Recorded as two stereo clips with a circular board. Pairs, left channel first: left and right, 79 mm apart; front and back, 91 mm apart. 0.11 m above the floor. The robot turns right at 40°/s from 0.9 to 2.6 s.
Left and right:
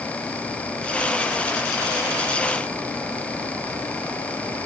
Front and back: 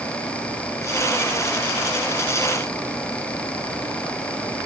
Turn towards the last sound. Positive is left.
No sound to turn to.